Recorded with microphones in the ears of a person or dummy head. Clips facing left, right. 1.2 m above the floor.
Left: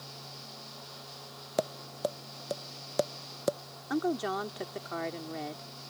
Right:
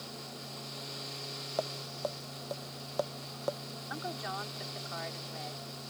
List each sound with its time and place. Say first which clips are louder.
1.6 s tapping: left 4 dB; 40° left (ahead or behind)
3.9 s a woman speaking: left 11 dB; 55° left (ahead or behind)